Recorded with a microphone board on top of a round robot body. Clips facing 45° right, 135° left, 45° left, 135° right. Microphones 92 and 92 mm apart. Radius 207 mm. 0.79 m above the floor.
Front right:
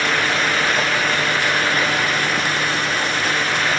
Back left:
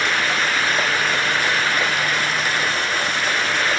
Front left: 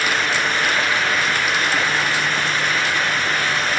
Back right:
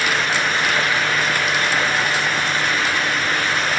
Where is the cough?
No cough in this recording.